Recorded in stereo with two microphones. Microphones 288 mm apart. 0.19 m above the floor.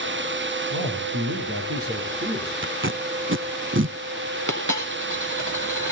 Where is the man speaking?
55° right (ahead or behind), 7 m; by 2.5 s 50° right (ahead or behind), 8 m.